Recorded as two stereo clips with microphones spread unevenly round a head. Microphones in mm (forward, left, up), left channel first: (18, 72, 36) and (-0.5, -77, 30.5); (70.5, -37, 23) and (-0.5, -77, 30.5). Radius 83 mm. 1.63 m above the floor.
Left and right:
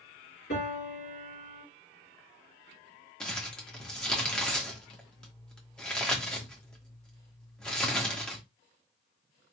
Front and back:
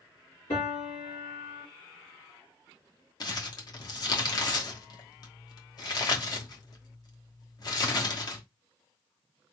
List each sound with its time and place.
0.5 s a piano: 50° left, 3.5 m
3.2 s crumpling: straight ahead, 1.1 m